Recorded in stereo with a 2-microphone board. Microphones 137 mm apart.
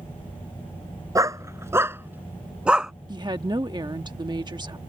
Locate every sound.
1.1 s a dog barking: 25° right (ahead or behind); by 2.9 s 5° right (ahead or behind)
3.1 s a woman speaking: 35° right (ahead or behind)